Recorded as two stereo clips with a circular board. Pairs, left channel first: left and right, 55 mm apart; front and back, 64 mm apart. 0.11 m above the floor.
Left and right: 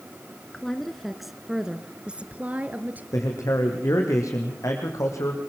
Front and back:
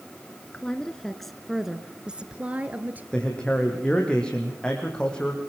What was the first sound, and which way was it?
A woman speaking, 30° left.